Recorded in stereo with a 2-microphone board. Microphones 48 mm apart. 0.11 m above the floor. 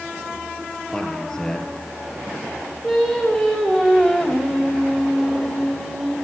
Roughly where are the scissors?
I don't hear scissors.